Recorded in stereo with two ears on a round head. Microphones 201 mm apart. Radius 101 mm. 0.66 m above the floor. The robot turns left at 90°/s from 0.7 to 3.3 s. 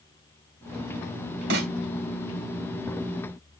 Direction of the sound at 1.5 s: 55° right (ahead or behind).